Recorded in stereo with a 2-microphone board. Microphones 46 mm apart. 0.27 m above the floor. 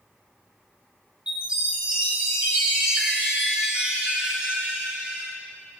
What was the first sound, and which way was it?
A chime, 20° right (ahead or behind).